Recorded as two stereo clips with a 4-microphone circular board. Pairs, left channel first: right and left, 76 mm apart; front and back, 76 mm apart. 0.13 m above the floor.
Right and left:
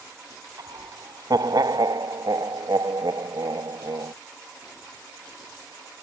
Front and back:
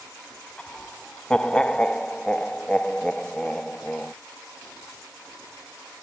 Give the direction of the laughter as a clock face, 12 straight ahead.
9 o'clock.